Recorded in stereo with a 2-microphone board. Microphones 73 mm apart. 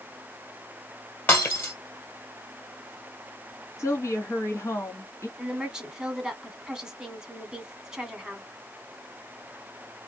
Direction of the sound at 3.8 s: 45° left (ahead or behind).